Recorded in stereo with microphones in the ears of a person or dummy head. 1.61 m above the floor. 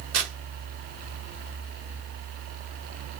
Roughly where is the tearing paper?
Right.